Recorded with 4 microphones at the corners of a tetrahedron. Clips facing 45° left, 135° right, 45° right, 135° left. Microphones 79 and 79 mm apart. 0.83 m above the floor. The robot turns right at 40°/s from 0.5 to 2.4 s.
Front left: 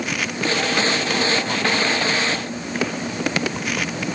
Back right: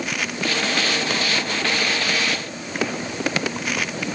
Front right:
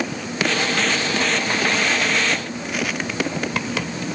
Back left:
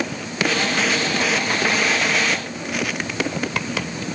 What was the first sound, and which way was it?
Only background noise.